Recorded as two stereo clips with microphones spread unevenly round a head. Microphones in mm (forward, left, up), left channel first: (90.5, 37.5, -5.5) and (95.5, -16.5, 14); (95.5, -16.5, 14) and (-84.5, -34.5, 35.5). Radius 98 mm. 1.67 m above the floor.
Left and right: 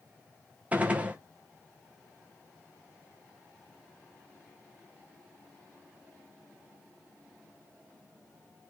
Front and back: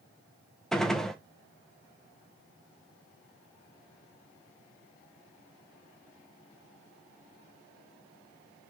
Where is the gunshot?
90° right, 0.8 m.